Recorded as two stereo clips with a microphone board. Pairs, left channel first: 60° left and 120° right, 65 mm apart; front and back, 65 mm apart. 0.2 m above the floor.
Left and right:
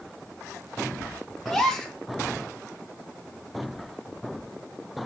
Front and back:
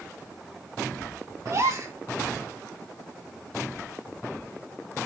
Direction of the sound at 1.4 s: 145° left.